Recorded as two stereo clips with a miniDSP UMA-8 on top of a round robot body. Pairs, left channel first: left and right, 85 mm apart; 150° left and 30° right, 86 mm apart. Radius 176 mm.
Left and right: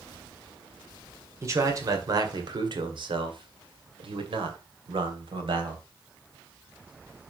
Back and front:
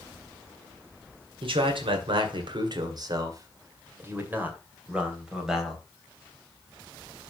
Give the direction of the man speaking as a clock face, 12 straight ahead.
1 o'clock.